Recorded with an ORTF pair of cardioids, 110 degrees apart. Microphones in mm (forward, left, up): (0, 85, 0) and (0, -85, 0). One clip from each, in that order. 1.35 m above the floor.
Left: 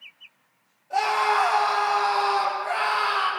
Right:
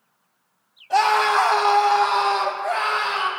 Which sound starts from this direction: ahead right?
A scream, at 0.9 s.